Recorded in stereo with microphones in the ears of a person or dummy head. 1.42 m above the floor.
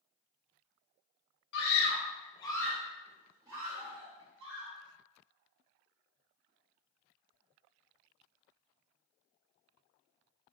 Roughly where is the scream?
Left.